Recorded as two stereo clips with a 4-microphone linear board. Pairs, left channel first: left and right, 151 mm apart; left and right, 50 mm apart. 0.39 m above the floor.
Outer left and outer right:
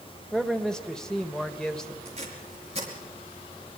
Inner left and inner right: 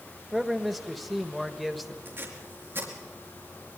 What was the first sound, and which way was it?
A man speaking, 5° left (ahead or behind).